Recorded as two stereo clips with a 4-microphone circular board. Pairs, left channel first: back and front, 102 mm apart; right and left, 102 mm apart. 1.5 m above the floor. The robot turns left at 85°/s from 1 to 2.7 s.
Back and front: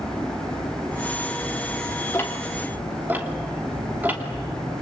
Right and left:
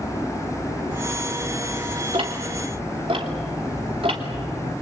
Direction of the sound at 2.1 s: 120° left.